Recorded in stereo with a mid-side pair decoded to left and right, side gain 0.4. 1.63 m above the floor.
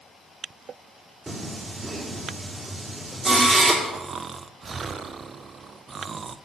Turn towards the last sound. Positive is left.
turn(degrees=-45)